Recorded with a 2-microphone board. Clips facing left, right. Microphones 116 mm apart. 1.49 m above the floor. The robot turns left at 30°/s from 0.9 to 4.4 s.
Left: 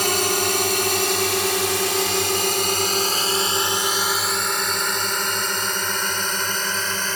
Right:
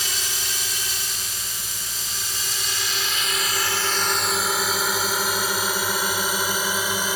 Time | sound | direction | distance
0.0 | a drone | 60° left (ahead or behind) | ?